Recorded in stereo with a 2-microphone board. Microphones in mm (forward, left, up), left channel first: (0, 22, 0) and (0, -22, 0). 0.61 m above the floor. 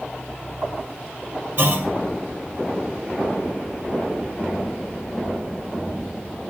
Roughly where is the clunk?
Right.